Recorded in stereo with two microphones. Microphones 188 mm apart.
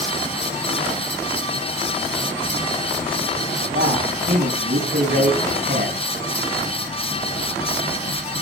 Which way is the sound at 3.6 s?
55° right (ahead or behind).